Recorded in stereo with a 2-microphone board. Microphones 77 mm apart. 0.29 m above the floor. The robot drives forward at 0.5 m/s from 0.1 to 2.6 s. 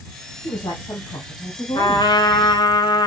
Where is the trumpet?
65° left (ahead or behind), 1.6 m; by 3.1 s 75° left (ahead or behind), 1.5 m.